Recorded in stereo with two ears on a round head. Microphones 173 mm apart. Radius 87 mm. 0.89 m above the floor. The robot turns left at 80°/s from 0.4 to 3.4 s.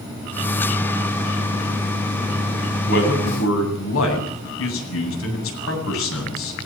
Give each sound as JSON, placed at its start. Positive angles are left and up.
{"t": 2.9, "sound": "a man speaking", "side_deg": 60, "distance_m": 8.5}